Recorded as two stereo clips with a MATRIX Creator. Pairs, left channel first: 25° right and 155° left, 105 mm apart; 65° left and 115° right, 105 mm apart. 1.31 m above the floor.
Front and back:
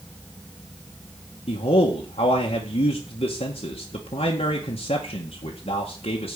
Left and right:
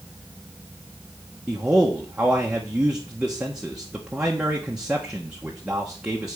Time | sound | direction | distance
1.5 | a man speaking | 30° right | 1.6 m